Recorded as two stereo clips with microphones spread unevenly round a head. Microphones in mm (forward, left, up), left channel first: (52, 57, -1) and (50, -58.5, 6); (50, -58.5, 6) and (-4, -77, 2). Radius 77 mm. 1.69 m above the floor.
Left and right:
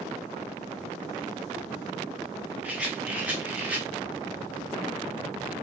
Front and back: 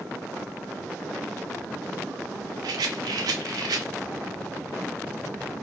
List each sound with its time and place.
2.6 s a rattle: 170° right, 0.6 m